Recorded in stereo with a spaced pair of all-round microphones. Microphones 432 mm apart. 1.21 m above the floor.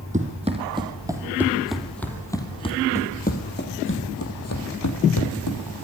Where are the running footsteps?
15° right (ahead or behind), 3 m; by 5.6 s 50° left (ahead or behind), 2.5 m.